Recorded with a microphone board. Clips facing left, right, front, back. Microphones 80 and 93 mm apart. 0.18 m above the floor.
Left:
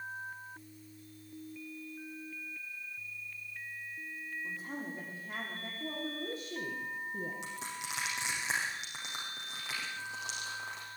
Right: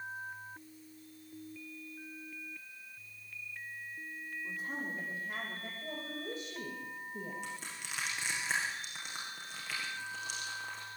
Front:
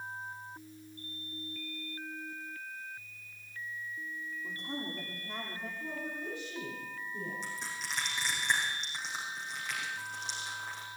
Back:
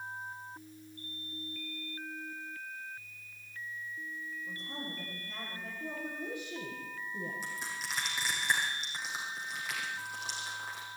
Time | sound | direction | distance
4.4 | a woman speaking | 25° left | 6.5 m
5.8 | a woman speaking | 105° left | 7 m
7.4 | crushing | 95° left | 7 m